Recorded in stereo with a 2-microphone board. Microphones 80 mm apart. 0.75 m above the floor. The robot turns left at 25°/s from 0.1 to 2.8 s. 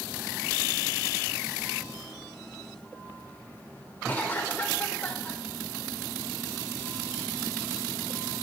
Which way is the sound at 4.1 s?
20° left (ahead or behind).